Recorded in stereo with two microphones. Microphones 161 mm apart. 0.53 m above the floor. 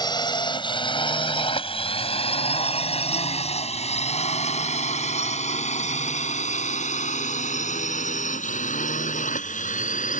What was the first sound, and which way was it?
A drone, 25° left (ahead or behind).